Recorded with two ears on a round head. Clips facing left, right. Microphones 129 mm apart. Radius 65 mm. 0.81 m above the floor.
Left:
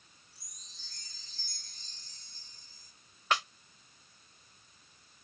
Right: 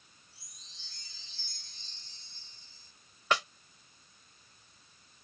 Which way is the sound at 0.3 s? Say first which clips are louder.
Even; 40° left (ahead or behind).